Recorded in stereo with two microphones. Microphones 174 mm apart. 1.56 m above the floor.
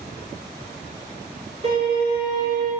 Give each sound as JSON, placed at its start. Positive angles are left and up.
{"t": 1.6, "sound": "a violin", "side_deg": -35, "distance_m": 3.0}